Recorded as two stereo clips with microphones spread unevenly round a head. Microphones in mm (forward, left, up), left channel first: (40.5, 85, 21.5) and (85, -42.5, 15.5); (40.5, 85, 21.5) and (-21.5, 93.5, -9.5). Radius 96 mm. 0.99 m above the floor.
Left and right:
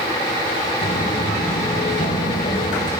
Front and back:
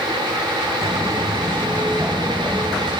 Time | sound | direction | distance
0.8 | footsteps | 120° left | 4.5 m